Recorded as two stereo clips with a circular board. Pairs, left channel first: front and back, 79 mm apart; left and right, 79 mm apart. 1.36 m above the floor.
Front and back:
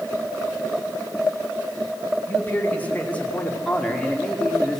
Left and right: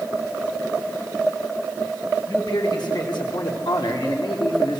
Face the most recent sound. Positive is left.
turn(degrees=85)